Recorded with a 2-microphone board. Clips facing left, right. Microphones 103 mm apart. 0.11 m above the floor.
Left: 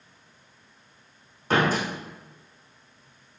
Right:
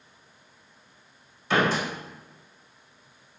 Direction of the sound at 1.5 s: 45° left (ahead or behind).